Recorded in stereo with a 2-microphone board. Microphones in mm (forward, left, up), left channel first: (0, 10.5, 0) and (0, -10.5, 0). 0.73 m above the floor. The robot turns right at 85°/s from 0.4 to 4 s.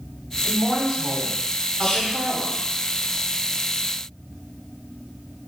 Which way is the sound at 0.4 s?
175° left.